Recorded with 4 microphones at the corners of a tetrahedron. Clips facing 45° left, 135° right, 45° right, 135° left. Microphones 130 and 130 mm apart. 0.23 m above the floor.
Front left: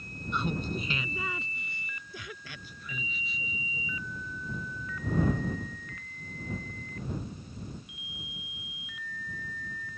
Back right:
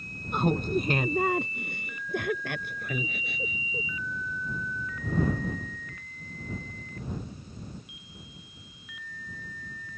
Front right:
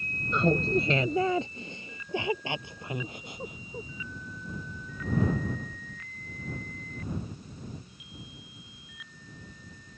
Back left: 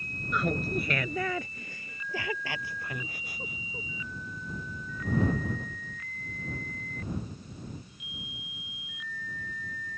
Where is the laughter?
105° right; by 3.9 s 115° right.